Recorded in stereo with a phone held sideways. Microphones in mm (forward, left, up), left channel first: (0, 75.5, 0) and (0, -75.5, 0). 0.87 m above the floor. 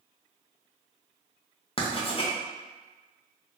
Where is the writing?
35° left (ahead or behind), 0.5 m.